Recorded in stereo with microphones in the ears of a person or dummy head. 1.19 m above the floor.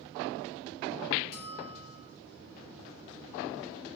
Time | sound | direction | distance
1.3 | a bell | 45° left (ahead or behind) | 7.5 m